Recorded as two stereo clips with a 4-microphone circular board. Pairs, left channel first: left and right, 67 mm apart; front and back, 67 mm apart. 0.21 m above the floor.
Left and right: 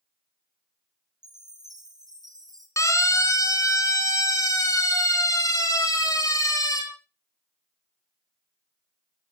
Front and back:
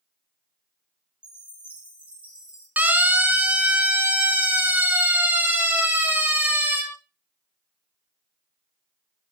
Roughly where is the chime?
Right.